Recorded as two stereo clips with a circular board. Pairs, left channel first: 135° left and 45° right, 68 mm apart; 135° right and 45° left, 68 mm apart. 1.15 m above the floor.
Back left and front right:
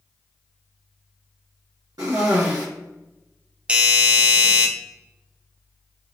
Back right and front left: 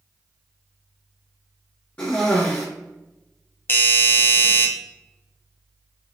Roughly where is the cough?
Right.